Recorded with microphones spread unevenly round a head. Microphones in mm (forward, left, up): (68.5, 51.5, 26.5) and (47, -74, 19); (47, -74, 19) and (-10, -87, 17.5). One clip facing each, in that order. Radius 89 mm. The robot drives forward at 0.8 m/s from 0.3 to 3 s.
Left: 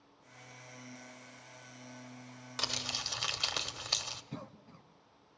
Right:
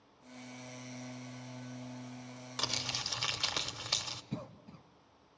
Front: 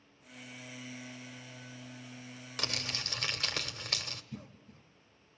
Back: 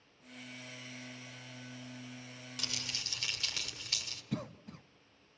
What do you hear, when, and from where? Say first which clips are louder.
2.6 s crumpling: even, front 5 dB; 10° right, 2.5 m
4.3 s a cough: right 5 dB, back 8 dB; 175° right, 0.8 m